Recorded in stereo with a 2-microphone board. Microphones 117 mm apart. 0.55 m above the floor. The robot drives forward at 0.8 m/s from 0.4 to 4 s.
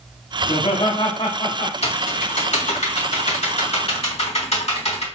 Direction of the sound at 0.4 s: 50° left (ahead or behind).